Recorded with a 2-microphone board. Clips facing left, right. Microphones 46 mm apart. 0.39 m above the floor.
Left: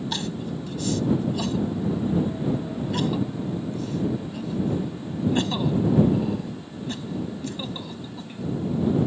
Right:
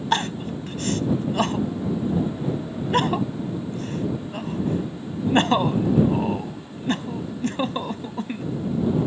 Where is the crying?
50° right (ahead or behind).